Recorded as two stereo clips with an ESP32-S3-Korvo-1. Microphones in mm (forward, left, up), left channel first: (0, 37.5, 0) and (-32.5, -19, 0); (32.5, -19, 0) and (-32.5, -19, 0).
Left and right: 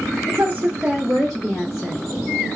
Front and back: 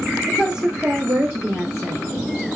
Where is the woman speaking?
100° right, 0.9 m; by 2.0 s 120° left, 1.2 m.